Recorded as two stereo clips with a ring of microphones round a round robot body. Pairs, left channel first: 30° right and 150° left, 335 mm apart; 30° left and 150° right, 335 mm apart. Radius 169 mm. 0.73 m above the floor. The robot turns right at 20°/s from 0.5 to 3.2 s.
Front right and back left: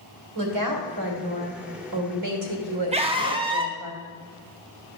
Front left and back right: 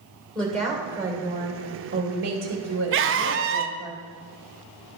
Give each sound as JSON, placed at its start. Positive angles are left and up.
{"t": 0.3, "sound": "a woman speaking", "azimuth_deg": 115, "distance_m": 2.5}
{"t": 2.9, "sound": "a scream", "azimuth_deg": -150, "distance_m": 0.7}